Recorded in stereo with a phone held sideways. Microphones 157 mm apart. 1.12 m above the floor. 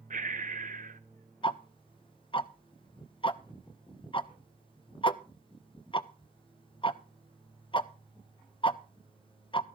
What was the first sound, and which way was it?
Breathing, 60° right (ahead or behind).